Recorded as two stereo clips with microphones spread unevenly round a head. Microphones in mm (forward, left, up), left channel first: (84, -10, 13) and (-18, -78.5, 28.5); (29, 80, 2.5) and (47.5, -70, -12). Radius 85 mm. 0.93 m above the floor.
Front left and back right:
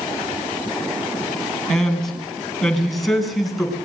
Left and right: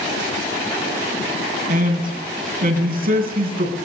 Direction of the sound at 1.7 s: 50° right.